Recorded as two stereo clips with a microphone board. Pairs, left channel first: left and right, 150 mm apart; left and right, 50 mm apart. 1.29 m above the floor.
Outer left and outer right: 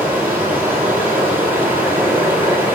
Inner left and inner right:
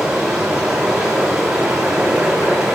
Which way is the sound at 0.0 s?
15° right (ahead or behind).